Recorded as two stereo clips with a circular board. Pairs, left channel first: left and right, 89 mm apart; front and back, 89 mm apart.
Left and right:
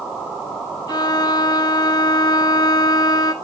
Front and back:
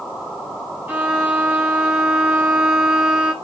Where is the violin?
115° left, 1.8 m.